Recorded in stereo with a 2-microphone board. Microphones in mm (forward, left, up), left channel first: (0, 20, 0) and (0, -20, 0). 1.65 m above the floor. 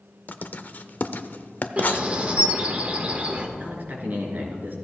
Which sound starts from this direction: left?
Writing, at 0.3 s.